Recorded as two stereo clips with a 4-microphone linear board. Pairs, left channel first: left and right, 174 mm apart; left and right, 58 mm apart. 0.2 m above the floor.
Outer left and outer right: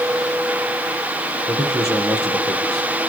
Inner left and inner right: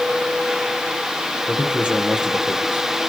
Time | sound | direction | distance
1.5 | a man speaking | 20° right (ahead or behind) | 6.5 m